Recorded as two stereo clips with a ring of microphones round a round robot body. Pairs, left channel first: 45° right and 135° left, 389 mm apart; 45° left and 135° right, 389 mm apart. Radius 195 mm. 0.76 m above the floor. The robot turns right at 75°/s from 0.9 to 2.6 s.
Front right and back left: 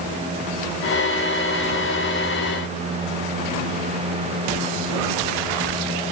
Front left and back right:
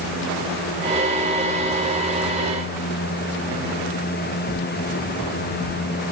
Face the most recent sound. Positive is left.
No sound to turn to.